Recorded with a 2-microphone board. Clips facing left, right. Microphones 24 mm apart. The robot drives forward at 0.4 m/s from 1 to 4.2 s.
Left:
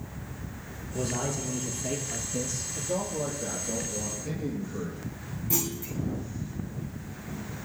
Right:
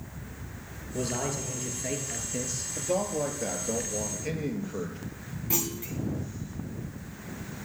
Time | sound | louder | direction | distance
0.9 | a man speaking | even | 25° right (ahead or behind) | 5.5 m
2.8 | a man speaking | right 3 dB | 70° right (ahead or behind) | 5 m
5.5 | a clunk | even | 25° right (ahead or behind) | 3.5 m